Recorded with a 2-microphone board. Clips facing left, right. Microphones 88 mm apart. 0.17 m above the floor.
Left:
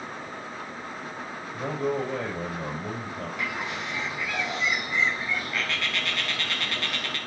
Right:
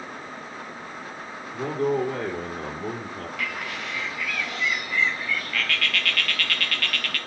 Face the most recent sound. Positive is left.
turn(degrees=20)  # may be behind; listen again after turning